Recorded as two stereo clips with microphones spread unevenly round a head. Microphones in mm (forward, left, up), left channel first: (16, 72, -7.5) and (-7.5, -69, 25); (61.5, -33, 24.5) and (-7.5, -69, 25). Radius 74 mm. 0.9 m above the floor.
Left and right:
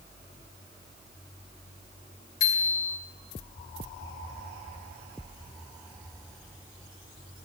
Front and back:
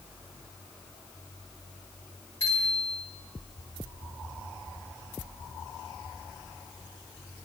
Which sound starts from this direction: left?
A bicycle bell, at 2.4 s.